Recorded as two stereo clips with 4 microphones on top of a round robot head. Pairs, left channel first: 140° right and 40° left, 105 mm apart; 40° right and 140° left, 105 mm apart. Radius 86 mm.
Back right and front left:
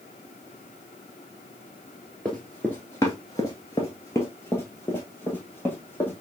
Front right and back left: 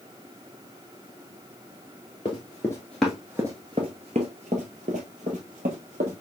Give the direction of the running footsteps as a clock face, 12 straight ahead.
2 o'clock.